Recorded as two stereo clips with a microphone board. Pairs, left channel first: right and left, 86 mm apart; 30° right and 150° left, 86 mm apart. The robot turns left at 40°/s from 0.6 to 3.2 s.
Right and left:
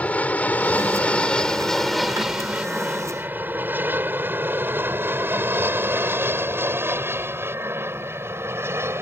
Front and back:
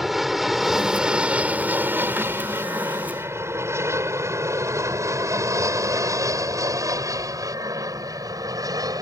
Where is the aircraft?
125° right; by 9.0 s 135° left.